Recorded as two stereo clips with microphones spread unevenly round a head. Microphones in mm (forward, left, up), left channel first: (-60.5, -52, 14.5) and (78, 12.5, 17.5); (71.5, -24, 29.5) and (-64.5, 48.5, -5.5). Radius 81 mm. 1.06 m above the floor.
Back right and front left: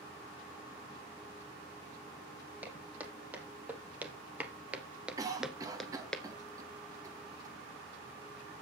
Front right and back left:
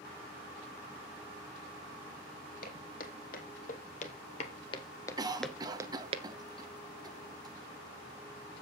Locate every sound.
2.6 s footsteps: 55° right, 3.5 m; by 6.2 s 125° left, 1.1 m
5.2 s a cough: 95° left, 1.6 m